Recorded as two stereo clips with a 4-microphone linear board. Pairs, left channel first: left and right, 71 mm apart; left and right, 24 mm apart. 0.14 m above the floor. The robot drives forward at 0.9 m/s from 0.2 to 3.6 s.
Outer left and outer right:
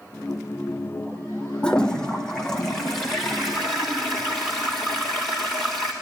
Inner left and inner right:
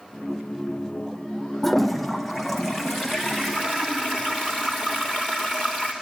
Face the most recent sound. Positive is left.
turn(degrees=5)  # may be behind; listen again after turning